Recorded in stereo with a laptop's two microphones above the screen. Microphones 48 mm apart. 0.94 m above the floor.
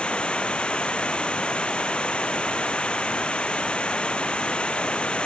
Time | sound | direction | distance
0.0 | running water | 20° left (ahead or behind) | ?